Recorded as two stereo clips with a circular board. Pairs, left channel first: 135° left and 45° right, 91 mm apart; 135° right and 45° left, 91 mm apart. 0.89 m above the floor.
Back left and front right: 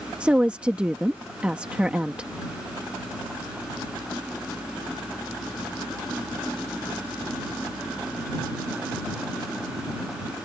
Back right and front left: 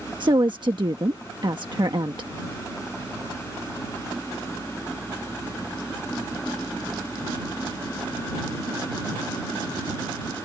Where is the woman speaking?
30° left.